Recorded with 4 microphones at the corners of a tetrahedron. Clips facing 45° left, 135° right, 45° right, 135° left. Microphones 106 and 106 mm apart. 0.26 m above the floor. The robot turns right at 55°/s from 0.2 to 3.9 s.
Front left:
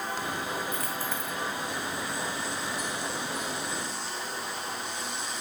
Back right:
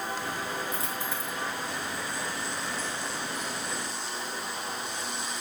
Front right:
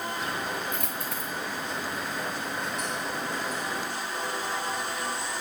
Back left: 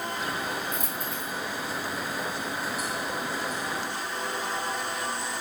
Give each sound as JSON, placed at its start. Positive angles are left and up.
{"t": 0.7, "sound": "a dropped coin", "azimuth_deg": -80, "distance_m": 3.5}